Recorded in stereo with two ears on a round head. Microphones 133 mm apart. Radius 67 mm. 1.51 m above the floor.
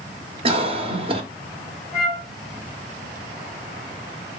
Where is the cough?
40° right (ahead or behind), 1.1 m.